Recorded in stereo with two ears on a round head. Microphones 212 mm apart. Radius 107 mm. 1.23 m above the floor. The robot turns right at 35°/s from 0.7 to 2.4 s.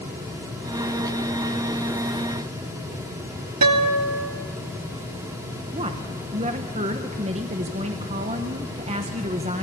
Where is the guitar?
80° right, 2 m.